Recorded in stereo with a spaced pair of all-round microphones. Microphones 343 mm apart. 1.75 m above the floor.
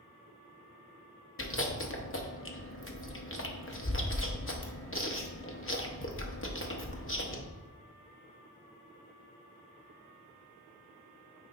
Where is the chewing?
35° left (ahead or behind), 0.8 m.